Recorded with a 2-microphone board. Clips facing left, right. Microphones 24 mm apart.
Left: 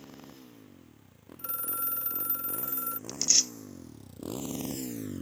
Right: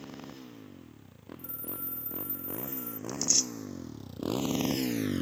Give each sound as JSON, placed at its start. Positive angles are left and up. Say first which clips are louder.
{"t": 0.0, "sound": "a motorcycle", "louder": "right 4 dB", "side_deg": -20}
{"t": 1.4, "sound": "a phone ringing", "louder": "left 7 dB", "side_deg": 65}
{"t": 3.1, "sound": "tearing paper", "louder": "left 2 dB", "side_deg": 30}